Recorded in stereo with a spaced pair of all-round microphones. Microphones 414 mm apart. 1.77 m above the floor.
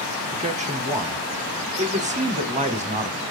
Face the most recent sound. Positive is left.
turn(degrees=-15)  # may be behind; listen again after turning